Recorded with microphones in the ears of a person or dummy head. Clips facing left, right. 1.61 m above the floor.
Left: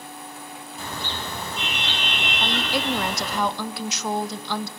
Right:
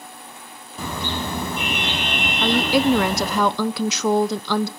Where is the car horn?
55° right (ahead or behind), 5 m; by 3.4 s 35° right (ahead or behind), 4 m.